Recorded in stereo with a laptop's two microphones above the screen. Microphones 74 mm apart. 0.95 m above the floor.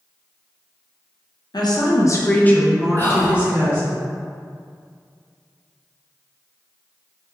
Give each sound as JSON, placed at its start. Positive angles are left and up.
{"t": 1.5, "sound": "a woman speaking", "side_deg": 65, "distance_m": 0.7}
{"t": 3.0, "sound": "whispering", "side_deg": 25, "distance_m": 0.6}